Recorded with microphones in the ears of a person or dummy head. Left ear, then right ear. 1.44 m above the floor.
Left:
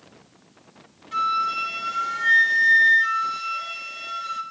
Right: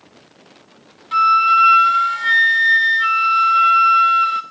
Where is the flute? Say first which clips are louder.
Right 11 dB; 25° right (ahead or behind), 0.6 m.